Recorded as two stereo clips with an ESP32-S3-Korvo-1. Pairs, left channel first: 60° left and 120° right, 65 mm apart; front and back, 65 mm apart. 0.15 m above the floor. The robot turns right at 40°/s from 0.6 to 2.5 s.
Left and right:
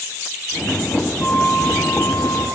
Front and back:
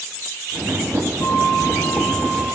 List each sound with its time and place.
1.2 s a flute: 30° left, 2 m; by 2.5 s 80° left, 2 m